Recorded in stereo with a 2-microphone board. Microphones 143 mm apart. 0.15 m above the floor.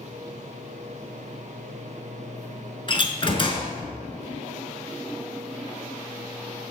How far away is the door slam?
About 1.3 m.